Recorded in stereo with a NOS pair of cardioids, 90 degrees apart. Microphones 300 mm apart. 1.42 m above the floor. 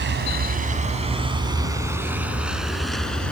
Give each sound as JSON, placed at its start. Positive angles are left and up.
{"t": 0.0, "sound": "a vehicle", "azimuth_deg": -45}